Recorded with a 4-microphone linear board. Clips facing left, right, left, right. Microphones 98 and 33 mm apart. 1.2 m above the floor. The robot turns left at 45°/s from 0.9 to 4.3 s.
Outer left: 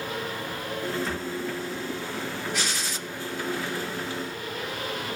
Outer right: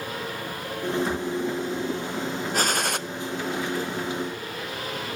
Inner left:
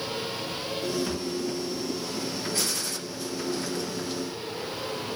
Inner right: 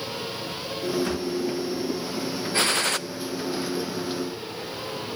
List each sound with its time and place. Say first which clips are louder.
1.0 s a thud: outer right 4 dB, inner right 3 dB; 50° right (ahead or behind), 8.5 m; by 1.3 s 60° right (ahead or behind), 8.5 m
2.5 s a gunshot: outer right 6 dB, inner right 7 dB; 45° right (ahead or behind), 0.5 m; by 3.0 s 60° right (ahead or behind), 0.5 m